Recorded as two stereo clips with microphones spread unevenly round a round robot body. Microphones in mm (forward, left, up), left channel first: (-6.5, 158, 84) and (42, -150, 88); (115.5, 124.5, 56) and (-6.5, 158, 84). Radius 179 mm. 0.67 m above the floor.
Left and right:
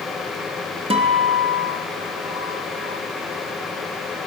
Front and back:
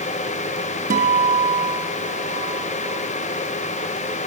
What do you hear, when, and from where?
0.9 s a guitar: 155° right, 3.5 m